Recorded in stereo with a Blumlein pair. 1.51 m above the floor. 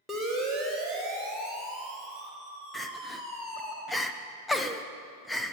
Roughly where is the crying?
Ahead.